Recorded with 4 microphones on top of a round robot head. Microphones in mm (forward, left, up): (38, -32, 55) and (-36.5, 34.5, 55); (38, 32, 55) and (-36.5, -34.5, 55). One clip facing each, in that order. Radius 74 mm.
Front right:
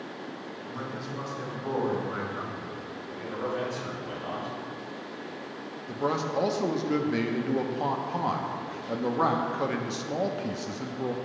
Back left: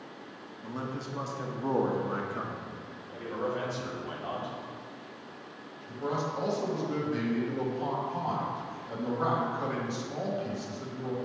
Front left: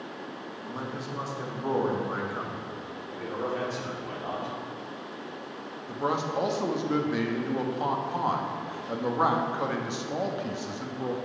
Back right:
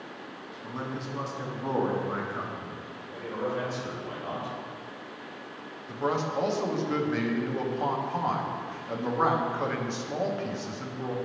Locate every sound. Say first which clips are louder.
0.6 s a man speaking: back left 2 dB, back right 1 dB; 125° left, 1.1 m
3.1 s a man speaking: even, even; 70° left, 2.5 m
5.9 s a man speaking: front right 4 dB, even; 35° right, 0.9 m